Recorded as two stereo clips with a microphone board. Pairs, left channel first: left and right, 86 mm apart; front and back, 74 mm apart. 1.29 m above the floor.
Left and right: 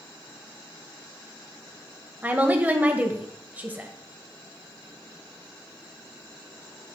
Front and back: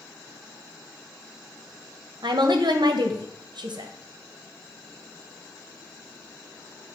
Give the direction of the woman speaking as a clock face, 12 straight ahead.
5 o'clock.